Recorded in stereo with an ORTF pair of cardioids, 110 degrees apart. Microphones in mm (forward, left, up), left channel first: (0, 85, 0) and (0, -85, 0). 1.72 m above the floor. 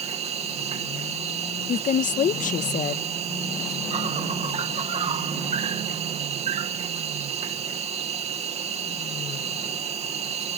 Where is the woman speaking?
50° left.